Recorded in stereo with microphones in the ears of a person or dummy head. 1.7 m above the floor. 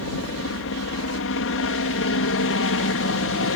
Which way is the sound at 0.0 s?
60° left (ahead or behind).